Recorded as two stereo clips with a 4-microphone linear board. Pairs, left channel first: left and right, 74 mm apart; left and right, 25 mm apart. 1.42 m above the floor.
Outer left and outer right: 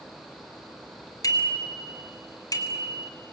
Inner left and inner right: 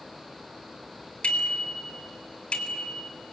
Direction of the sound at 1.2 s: 60° left (ahead or behind).